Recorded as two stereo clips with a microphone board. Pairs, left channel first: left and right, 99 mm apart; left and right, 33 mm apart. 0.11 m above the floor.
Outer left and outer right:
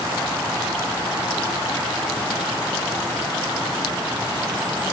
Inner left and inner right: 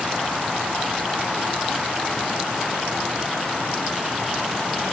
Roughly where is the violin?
No violin in this recording.